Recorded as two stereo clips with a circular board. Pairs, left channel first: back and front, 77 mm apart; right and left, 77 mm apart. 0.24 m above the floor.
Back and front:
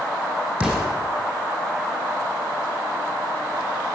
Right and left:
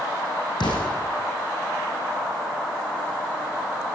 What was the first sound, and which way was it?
An explosion, 80° right.